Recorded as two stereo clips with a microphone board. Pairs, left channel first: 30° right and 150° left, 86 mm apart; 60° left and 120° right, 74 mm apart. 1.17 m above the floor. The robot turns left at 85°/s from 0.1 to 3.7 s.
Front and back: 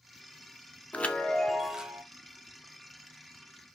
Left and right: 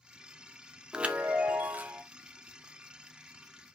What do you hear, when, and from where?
0.9 s a chime: 65° right, 0.6 m; by 2.0 s 160° right, 0.6 m